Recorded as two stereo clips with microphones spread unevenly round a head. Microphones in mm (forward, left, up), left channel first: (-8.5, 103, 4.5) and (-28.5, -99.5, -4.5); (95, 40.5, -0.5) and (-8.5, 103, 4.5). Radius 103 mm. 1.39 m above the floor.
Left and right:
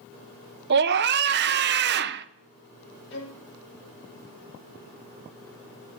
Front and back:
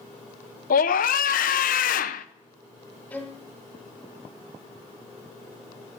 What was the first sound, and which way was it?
A scream, 50° right.